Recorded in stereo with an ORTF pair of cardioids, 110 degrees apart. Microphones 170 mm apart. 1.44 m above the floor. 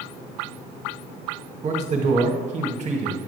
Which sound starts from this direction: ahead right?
A man speaking, at 1.6 s.